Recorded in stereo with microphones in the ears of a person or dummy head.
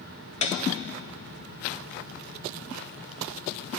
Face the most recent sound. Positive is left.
turn(degrees=30)  # may be behind; listen again after turning